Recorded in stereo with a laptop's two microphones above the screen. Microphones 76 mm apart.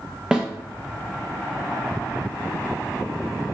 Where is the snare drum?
10° right (ahead or behind), 0.5 m.